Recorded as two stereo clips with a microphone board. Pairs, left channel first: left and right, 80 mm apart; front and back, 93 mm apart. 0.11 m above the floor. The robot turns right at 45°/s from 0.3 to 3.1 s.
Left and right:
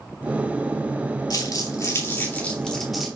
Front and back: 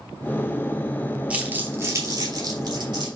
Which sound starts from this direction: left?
Crumpling, at 1.3 s.